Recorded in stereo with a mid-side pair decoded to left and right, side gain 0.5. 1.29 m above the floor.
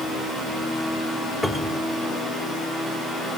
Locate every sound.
1.4 s a cupboard door: 10° left, 2.5 m